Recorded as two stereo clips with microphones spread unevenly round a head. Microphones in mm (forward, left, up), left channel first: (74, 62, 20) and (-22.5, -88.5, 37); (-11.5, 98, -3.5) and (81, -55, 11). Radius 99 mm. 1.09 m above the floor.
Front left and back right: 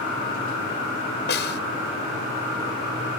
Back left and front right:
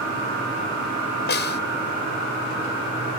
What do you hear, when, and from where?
1.3 s a snare drum: 95° left